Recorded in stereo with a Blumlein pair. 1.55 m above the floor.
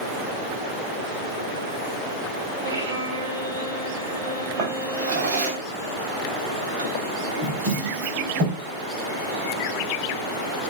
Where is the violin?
60° right, 2.5 m.